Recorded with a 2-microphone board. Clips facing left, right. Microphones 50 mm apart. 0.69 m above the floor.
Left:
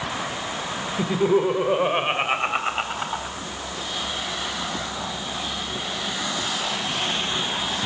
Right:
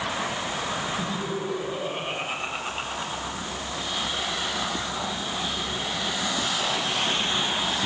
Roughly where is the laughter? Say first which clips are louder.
Left 9 dB; left.